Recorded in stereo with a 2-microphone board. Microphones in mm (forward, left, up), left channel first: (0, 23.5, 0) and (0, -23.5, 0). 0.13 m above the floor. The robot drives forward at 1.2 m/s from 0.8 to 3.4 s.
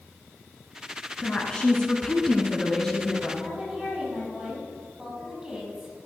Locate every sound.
1.2 s a woman speaking: 15° left (ahead or behind), 1.3 m; by 3.3 s 10° left (ahead or behind), 2 m
3.4 s a woman speaking: 15° right (ahead or behind), 4.5 m